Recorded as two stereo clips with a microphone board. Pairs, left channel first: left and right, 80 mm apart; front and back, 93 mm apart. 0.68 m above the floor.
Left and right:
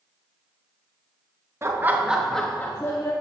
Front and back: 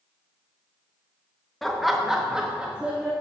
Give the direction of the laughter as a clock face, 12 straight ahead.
3 o'clock.